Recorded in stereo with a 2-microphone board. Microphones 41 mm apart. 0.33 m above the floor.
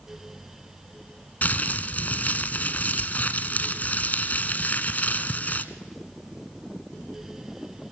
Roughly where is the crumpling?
Left.